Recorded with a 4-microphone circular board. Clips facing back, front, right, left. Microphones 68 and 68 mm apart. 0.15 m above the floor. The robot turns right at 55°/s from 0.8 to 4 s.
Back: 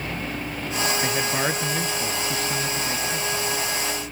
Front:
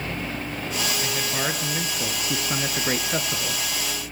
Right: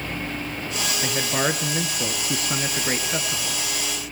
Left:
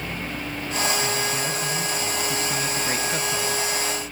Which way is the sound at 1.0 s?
130° right.